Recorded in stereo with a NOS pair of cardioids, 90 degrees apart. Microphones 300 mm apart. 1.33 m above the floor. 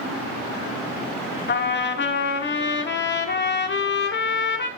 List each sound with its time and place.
1.5 s a trumpet: 35° left, 1.6 m